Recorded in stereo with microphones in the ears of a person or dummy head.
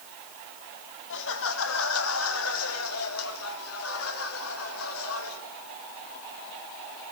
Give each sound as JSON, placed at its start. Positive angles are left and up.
{"t": 1.1, "sound": "laughter", "side_deg": 70, "distance_m": 2.5}